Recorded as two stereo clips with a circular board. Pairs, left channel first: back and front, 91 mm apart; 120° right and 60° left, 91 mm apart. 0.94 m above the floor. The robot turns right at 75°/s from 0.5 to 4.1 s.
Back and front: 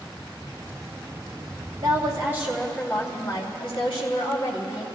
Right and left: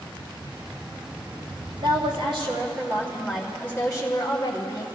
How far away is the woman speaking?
About 3 m.